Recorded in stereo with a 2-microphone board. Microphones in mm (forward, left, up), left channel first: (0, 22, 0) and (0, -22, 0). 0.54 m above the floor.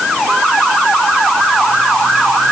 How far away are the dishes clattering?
No dishes clattering in this recording.